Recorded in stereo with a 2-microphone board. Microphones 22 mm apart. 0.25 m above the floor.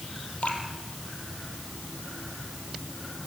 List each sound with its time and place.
0.4 s dripping: 85° left, 3.5 m